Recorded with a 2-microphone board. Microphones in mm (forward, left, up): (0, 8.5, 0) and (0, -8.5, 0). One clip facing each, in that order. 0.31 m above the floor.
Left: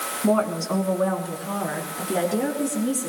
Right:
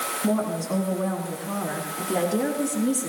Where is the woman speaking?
50° left (ahead or behind), 2.5 m; by 3.1 s 10° right (ahead or behind), 4.5 m.